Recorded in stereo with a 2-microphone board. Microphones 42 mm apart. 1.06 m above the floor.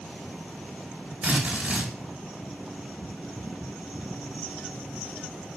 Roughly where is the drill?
Right.